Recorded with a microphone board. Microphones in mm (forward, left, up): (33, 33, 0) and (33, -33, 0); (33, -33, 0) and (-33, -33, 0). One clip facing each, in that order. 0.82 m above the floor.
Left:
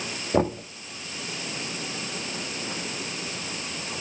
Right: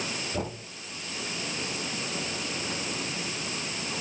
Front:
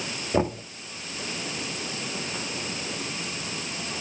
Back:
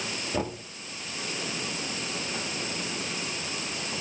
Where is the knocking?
60° left, 1.1 m.